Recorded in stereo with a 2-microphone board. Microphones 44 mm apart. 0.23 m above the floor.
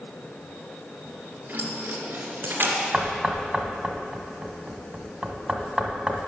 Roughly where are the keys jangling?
Right.